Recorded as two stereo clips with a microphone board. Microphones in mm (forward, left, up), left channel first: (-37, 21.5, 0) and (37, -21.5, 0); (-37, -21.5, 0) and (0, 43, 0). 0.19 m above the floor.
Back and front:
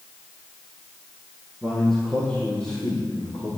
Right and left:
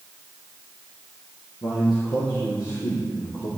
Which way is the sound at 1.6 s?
125° right.